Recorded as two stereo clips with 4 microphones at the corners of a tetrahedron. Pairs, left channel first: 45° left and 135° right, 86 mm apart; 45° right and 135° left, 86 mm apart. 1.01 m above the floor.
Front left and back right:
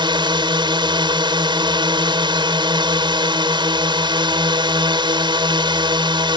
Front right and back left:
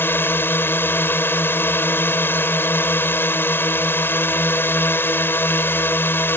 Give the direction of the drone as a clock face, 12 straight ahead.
4 o'clock.